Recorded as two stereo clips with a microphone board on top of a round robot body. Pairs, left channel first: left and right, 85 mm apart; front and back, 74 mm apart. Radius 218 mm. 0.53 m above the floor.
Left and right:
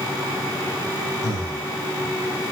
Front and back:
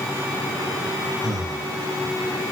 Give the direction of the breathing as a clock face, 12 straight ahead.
8 o'clock.